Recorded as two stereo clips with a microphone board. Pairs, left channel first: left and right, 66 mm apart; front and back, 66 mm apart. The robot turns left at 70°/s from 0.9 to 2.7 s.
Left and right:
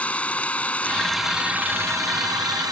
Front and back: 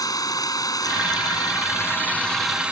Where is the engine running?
20° left; by 2.7 s 105° right.